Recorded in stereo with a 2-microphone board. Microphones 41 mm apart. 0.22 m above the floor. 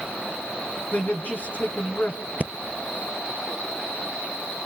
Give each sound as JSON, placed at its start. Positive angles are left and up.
{"t": 0.9, "sound": "a man speaking", "side_deg": 45, "distance_m": 2.0}
{"t": 2.4, "sound": "breathing", "side_deg": -40, "distance_m": 0.8}